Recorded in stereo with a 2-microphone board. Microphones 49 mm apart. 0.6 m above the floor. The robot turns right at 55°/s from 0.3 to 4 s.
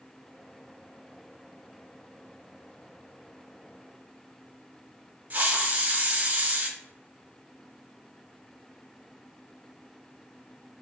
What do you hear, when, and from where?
5.3 s a hiss: 35° right (ahead or behind), 0.5 m